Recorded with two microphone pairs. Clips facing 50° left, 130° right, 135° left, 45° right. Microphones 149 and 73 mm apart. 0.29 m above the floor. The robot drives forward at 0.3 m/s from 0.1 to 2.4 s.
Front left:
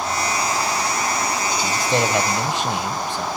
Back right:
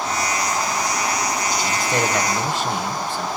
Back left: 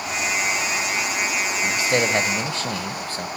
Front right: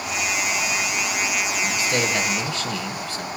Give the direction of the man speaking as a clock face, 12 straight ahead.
9 o'clock.